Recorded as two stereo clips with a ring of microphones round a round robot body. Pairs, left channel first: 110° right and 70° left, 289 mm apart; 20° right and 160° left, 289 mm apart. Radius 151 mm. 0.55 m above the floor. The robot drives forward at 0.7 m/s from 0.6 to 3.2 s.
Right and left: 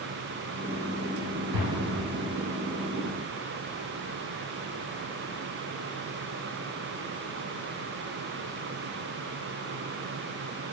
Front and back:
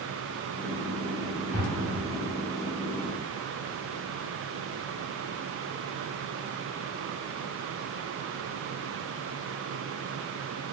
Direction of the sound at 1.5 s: 55° left.